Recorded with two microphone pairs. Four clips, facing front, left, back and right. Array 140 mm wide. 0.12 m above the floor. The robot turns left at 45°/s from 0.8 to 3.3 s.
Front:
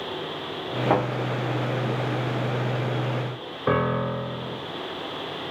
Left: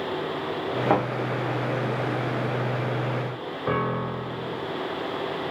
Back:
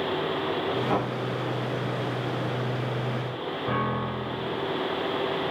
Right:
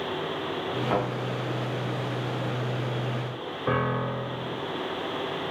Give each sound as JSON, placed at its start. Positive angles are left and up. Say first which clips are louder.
{"t": 0.9, "sound": "a thud", "louder": "left 4 dB, front 6 dB", "azimuth_deg": 60, "distance_m": 5.0}
{"t": 3.7, "sound": "a piano", "louder": "even, front 6 dB", "azimuth_deg": 0, "distance_m": 1.6}